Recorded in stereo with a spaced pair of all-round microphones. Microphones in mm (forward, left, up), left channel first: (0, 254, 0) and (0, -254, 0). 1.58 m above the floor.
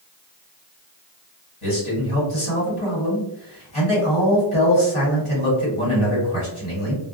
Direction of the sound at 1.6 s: 75° left (ahead or behind).